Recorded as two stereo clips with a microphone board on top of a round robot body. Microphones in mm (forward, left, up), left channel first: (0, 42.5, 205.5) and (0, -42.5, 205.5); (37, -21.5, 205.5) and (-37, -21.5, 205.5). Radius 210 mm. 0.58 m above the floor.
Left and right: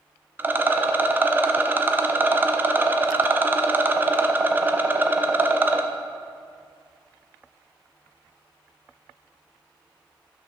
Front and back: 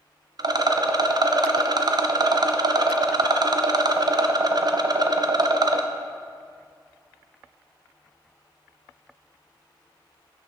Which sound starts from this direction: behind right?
A rattle, at 0.4 s.